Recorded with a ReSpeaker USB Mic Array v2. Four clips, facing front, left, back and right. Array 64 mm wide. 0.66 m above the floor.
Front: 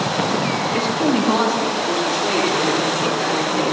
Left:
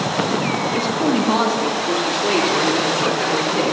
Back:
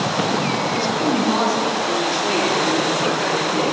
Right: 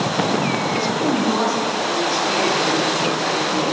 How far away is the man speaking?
About 1.1 m.